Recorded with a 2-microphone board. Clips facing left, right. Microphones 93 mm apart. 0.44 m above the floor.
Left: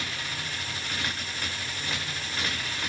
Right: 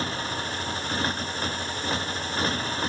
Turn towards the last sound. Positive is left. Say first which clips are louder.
# right 6 dB
turn(degrees=-35)  # may be behind; listen again after turning